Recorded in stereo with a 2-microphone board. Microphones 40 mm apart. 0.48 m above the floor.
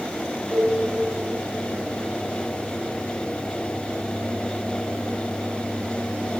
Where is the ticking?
I don't hear ticking.